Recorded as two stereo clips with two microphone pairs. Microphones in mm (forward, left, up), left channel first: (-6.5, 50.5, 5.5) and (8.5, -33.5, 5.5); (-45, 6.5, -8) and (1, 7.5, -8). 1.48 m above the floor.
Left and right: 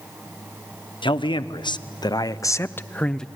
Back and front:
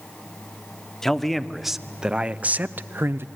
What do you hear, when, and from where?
1.0 s a man speaking: 100° left, 1.0 m; by 3.3 s 15° left, 0.8 m